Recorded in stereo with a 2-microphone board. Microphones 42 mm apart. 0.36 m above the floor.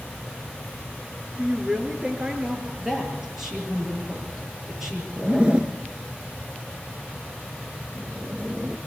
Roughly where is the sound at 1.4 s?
Centre.